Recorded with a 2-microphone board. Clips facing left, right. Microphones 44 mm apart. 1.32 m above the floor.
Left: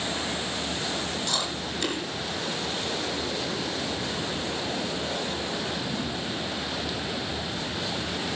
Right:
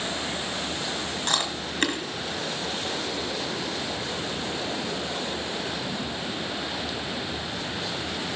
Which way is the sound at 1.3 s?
50° right (ahead or behind).